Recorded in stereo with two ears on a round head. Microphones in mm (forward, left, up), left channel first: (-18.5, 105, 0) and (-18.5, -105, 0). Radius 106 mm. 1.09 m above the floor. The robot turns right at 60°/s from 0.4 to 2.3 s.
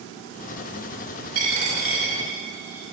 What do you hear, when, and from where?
1.4 s a dropped coin: 65° right (ahead or behind), 4.5 m; by 2.8 s 10° right (ahead or behind), 4.5 m